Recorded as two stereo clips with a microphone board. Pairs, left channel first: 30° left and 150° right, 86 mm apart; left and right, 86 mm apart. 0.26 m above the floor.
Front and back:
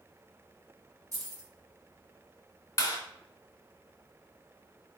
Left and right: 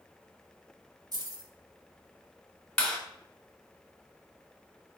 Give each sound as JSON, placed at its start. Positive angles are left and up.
{"t": 1.1, "sound": "keys jangling", "azimuth_deg": -110, "distance_m": 1.3}
{"t": 2.8, "sound": "a clap", "azimuth_deg": 20, "distance_m": 1.4}